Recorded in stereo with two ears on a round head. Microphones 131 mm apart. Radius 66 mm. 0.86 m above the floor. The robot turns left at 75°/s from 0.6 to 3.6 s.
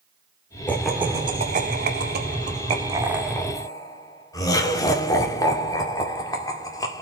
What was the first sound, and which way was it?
Laughter, 15° left (ahead or behind).